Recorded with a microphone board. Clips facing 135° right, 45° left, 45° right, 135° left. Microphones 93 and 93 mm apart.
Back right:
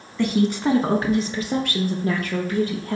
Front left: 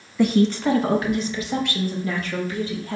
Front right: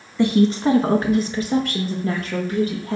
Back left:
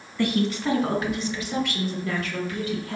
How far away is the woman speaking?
About 1.0 m.